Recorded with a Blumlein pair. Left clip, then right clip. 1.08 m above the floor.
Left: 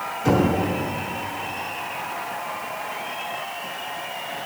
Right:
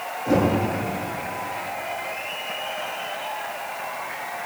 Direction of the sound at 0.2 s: 60° left.